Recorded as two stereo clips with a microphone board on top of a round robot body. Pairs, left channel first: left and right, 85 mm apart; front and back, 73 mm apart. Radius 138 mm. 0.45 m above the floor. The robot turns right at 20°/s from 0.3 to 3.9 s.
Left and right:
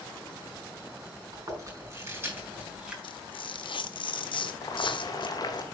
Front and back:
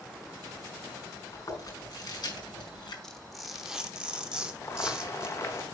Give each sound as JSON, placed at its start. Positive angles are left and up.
{"t": 1.3, "sound": "chewing", "azimuth_deg": -45, "distance_m": 5.0}
{"t": 3.0, "sound": "tearing paper", "azimuth_deg": 80, "distance_m": 1.2}
{"t": 4.6, "sound": "boiling", "azimuth_deg": 45, "distance_m": 1.6}